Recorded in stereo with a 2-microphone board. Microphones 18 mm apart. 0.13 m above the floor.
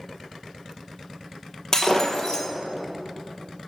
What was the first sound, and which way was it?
Breaking glass, 25° left (ahead or behind).